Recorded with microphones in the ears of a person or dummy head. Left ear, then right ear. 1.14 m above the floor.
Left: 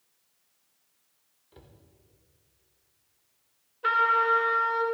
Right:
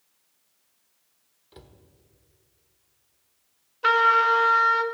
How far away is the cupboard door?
About 1.0 m.